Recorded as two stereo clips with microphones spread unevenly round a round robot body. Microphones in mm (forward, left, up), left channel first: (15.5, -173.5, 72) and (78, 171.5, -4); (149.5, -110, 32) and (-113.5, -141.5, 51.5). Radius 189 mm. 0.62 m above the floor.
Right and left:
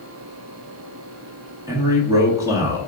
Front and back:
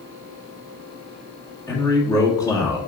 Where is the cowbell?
I don't hear a cowbell.